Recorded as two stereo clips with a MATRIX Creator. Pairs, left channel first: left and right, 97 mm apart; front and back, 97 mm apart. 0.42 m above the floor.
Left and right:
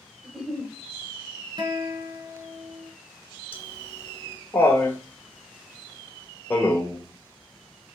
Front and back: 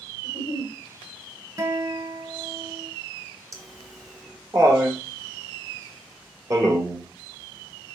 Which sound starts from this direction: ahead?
A giggle, at 0.2 s.